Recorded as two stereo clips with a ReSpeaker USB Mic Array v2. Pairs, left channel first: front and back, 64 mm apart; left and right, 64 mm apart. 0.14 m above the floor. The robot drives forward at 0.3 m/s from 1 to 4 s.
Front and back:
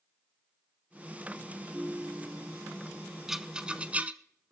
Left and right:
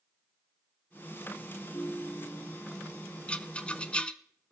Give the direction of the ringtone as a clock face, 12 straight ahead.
8 o'clock.